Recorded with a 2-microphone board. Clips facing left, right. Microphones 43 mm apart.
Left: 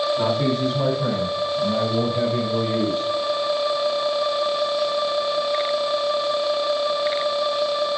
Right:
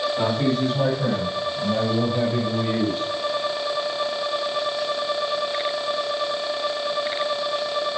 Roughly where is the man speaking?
Right.